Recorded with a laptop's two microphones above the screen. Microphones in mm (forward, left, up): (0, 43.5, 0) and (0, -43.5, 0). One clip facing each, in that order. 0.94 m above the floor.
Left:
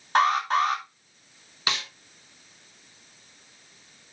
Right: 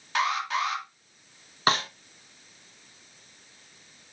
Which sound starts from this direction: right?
A snare drum, at 1.7 s.